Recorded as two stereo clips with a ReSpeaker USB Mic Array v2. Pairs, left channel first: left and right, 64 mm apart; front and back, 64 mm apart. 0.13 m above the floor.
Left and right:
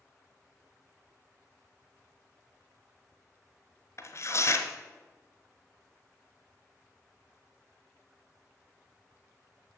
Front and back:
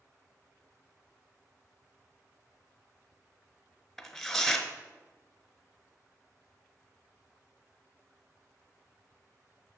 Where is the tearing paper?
85° left, 1.0 m.